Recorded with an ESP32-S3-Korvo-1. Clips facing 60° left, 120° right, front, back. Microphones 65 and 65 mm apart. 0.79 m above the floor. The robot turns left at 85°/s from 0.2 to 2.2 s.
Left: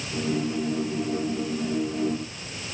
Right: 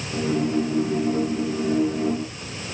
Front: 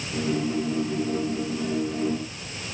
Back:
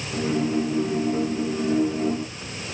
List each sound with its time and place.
Only background noise.